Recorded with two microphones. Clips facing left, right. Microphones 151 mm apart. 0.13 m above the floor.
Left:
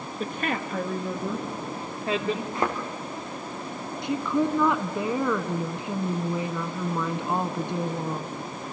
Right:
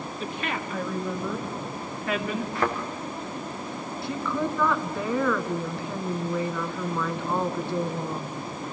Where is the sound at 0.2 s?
50° left (ahead or behind), 2 m; by 2.5 s 25° left (ahead or behind), 2.0 m.